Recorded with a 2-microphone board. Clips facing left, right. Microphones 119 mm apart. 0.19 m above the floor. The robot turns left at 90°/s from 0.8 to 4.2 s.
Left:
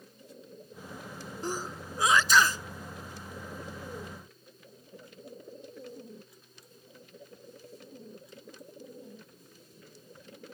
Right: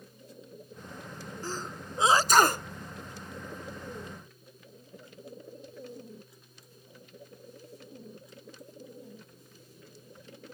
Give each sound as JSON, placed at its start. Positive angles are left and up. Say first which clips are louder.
{"t": 1.4, "sound": "a sneeze", "louder": "left 3 dB", "side_deg": 20}